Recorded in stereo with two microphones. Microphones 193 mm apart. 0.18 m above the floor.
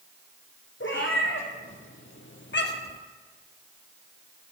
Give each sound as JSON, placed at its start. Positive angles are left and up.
{"t": 0.8, "sound": "a cat meowing", "side_deg": 75, "distance_m": 1.7}